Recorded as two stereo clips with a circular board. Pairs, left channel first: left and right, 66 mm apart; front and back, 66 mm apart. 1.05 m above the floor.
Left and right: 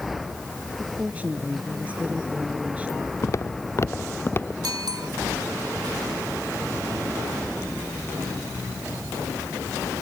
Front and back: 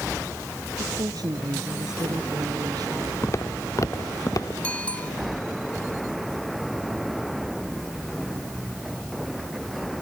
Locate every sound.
0.8 s a woman speaking: 160° right
3.2 s footsteps: 50° left; by 4.5 s 35° left
4.6 s a bicycle bell: 70° right